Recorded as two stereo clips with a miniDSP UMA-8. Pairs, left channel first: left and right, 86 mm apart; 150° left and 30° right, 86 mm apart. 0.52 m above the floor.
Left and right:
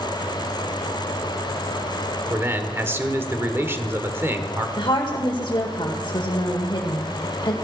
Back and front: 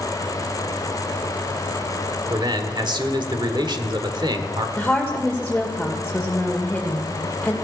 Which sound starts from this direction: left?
A woman speaking, at 4.8 s.